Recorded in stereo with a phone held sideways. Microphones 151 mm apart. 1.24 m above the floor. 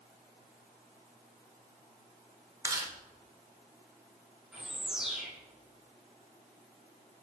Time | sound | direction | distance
2.6 | chewing | 25° right (ahead or behind) | 0.9 m
4.5 | a bird | 5° right (ahead or behind) | 1.8 m